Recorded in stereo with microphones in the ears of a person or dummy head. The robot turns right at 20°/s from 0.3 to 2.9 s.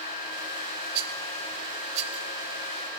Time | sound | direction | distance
0.9 | a rattle | 60° right (ahead or behind) | 2.0 m